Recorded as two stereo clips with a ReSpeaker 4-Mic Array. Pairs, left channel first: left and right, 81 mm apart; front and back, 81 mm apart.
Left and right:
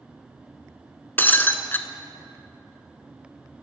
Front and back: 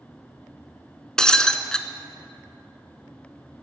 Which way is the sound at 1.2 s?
70° left.